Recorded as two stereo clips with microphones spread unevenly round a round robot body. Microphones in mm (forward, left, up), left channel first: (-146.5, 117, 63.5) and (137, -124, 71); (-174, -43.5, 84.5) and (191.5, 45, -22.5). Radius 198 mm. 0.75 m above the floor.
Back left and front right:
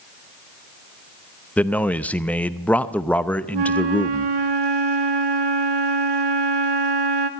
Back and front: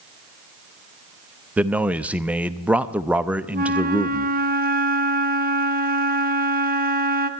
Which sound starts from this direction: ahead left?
A man speaking, at 1.6 s.